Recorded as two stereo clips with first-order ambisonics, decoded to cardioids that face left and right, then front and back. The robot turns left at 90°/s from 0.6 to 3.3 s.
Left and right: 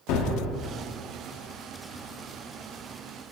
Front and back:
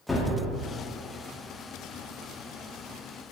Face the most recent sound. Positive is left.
turn(degrees=-160)